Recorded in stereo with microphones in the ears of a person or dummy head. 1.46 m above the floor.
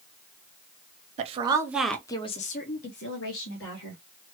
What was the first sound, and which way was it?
A woman speaking, 40° right (ahead or behind).